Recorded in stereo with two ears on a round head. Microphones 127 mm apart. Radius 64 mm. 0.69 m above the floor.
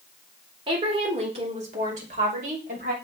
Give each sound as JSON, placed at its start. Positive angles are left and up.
{"t": 0.7, "sound": "a woman speaking", "side_deg": -35, "distance_m": 2.0}